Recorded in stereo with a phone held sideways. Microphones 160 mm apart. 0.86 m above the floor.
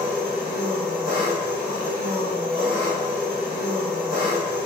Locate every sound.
0.0 s an engine running: 5° left (ahead or behind), 1.6 m